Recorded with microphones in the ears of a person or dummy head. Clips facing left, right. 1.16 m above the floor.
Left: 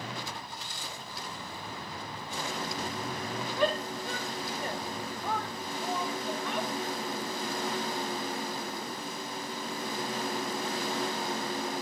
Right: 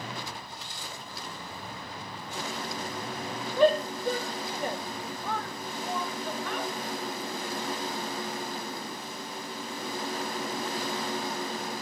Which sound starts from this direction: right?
A shout, at 3.6 s.